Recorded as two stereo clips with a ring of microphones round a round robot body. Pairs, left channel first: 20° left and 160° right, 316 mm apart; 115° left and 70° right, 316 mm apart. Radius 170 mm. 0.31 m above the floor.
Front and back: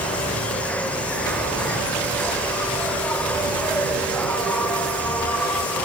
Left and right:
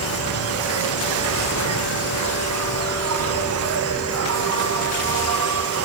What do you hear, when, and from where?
0.0 s an insect: 60° right, 0.8 m